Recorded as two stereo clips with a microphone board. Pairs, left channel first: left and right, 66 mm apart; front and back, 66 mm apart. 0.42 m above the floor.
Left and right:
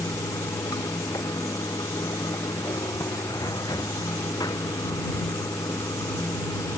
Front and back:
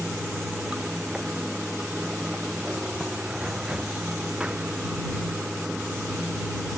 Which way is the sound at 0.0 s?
100° left.